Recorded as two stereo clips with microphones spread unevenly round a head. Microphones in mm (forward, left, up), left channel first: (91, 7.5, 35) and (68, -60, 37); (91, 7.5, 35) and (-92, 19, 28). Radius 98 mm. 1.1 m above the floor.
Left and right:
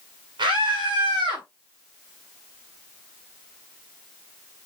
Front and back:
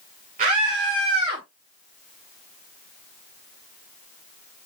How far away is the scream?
About 4 m.